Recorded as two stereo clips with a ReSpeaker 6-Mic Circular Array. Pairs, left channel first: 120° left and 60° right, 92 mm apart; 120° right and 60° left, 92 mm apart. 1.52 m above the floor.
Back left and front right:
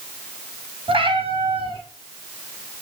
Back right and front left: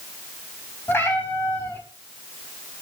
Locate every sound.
0.9 s a cat meowing: 55° right, 4.5 m